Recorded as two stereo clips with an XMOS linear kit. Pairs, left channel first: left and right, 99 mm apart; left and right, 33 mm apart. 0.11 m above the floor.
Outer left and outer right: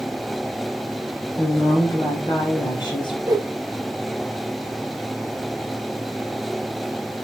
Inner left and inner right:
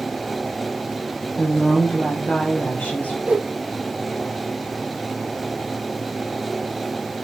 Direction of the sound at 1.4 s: 55° left (ahead or behind).